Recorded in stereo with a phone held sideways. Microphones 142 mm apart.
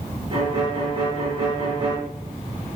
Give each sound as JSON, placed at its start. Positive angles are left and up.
{"t": 0.3, "sound": "a violin", "side_deg": -35, "distance_m": 4.5}